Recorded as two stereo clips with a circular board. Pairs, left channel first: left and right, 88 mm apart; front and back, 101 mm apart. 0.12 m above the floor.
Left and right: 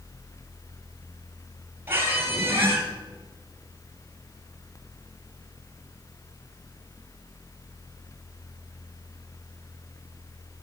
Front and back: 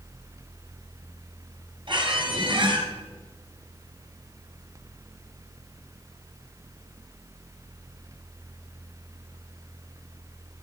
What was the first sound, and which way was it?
A squeak, 150° right.